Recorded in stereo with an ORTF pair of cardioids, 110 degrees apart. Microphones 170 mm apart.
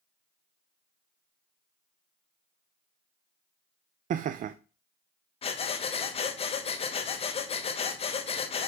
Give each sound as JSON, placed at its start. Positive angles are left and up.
{"t": 4.1, "sound": "laughter", "azimuth_deg": -50, "distance_m": 0.6}
{"t": 5.4, "sound": "breathing", "azimuth_deg": 35, "distance_m": 1.2}